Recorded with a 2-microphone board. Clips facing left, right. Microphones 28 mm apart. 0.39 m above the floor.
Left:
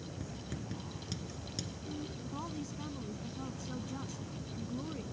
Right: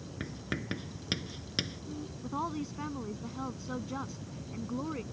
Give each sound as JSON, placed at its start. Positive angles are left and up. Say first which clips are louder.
{"t": 0.2, "sound": "writing", "louder": "right 9 dB", "side_deg": -55}
{"t": 2.2, "sound": "a woman speaking", "louder": "right 6 dB", "side_deg": -35}